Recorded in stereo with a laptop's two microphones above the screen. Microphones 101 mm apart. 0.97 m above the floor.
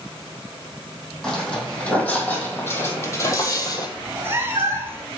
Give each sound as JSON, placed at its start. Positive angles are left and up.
{"t": 1.2, "sound": "footsteps", "side_deg": 5, "distance_m": 3.0}
{"t": 4.0, "sound": "a cat meowing", "side_deg": -25, "distance_m": 1.1}